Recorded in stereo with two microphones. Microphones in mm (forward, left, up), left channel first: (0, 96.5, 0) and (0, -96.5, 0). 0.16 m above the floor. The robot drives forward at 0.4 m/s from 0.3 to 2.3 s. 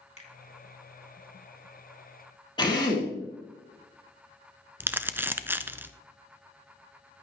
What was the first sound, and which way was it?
A finger snap, 35° left (ahead or behind).